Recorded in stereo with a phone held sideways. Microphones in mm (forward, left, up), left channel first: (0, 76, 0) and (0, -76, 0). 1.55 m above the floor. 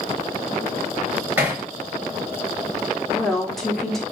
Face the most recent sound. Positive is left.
turn(degrees=0)  # may be behind; listen again after turning